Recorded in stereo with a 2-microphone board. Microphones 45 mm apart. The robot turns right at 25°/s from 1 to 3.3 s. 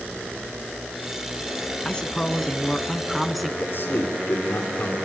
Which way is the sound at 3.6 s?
55° left (ahead or behind).